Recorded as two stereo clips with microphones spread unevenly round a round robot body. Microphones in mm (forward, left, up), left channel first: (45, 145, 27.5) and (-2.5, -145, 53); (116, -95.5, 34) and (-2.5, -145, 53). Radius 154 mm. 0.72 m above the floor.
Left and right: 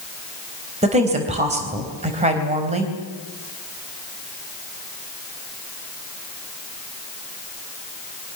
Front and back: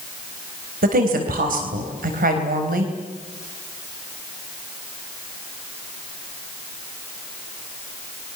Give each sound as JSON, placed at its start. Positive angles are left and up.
{"t": 0.8, "sound": "a woman speaking", "azimuth_deg": -170, "distance_m": 4.0}